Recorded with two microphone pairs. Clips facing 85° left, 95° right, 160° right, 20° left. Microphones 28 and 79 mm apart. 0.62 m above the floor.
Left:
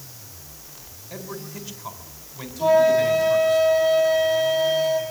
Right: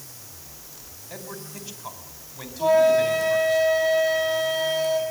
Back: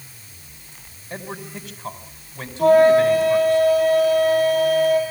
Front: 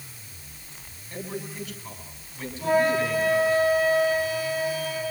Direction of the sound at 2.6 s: 175° left.